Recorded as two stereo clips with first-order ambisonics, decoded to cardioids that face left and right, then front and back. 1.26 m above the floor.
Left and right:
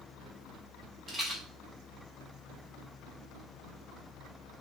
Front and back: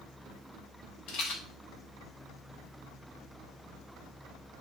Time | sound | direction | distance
1.1 | a rattle | 10° right | 0.8 m